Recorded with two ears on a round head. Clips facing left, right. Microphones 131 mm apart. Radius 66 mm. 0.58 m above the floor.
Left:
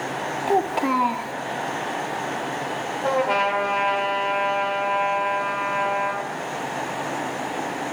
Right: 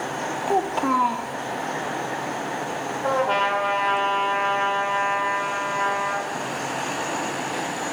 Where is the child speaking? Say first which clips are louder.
Left 1 dB; 10° left (ahead or behind), 0.8 m.